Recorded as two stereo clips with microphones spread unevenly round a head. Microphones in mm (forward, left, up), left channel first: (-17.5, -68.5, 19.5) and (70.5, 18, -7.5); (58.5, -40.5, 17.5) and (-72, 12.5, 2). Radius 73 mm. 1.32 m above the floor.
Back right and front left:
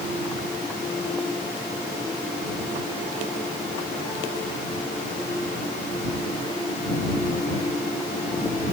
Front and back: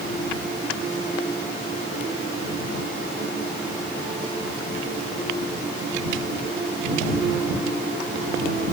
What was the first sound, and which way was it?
Only background noise.